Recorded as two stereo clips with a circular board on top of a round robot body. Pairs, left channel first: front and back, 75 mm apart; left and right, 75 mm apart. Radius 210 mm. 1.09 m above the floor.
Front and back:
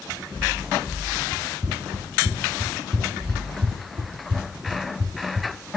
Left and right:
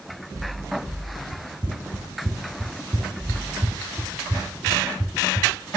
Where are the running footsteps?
100° right, 1.2 m; by 5.5 s 170° right, 2.5 m.